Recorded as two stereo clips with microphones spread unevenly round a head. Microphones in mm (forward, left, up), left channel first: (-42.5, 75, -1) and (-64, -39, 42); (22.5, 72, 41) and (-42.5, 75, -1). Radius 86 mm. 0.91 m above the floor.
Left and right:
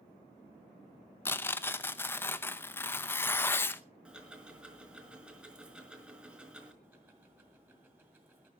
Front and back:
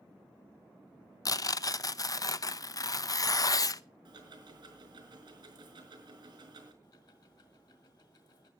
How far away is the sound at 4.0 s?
About 5 m.